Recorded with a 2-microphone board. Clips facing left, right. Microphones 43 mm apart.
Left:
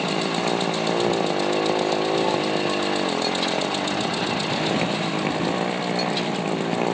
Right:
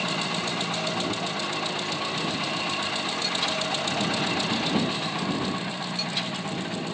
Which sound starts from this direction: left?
A motorcycle, at 0.0 s.